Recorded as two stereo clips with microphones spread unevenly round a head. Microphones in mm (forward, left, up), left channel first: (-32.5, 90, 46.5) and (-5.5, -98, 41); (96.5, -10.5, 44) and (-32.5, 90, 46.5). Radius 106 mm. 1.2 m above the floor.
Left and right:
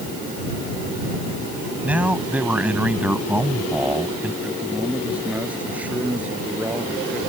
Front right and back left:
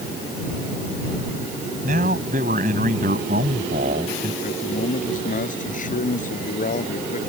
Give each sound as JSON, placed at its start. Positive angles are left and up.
{"t": 1.8, "sound": "a man speaking", "azimuth_deg": -165}
{"t": 4.4, "sound": "a man speaking", "azimuth_deg": 0}